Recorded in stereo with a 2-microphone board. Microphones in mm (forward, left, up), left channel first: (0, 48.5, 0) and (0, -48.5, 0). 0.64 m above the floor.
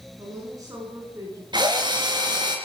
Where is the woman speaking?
35° right (ahead or behind), 10 m; by 1.4 s 30° right (ahead or behind), 10 m.